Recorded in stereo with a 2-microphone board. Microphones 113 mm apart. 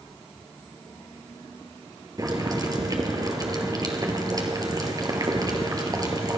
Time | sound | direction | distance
2.2 | boiling | 35° right (ahead or behind) | 1.9 m